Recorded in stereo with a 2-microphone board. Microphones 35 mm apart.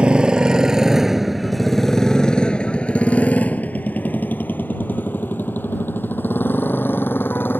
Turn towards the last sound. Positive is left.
turn(degrees=80)